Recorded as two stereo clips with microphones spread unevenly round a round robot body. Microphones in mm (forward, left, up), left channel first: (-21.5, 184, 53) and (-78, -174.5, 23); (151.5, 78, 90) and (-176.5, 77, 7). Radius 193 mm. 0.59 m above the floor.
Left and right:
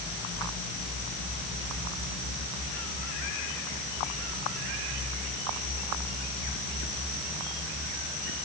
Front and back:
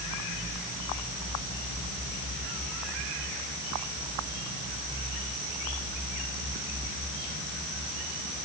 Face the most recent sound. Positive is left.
No sound to turn to.